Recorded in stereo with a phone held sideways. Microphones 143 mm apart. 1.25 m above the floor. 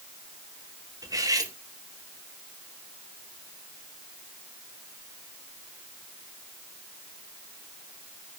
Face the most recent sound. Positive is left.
turn(degrees=-25)  # may be behind; listen again after turning